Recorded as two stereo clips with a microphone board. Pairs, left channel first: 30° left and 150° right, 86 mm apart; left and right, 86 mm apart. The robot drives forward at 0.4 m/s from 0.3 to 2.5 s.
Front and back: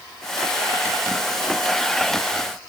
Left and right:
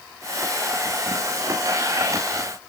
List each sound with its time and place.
Only background noise.